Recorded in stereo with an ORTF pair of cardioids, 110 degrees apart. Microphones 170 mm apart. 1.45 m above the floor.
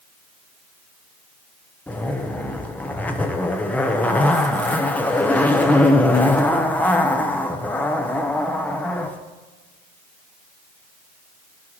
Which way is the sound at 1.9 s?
10° left.